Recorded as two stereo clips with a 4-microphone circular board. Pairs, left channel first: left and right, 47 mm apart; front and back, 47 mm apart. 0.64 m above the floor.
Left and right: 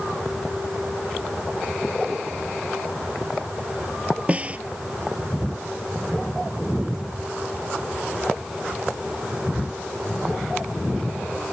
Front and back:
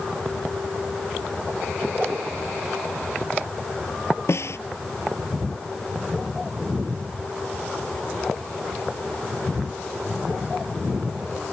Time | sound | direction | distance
4.3 | a snare drum | 30° right | ?